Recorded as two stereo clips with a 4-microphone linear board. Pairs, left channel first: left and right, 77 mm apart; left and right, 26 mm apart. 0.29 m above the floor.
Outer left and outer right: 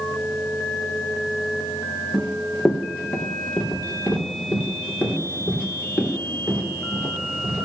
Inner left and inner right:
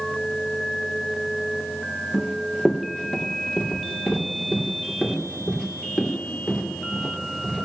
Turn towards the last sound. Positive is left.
turn(degrees=25)  # may be behind; listen again after turning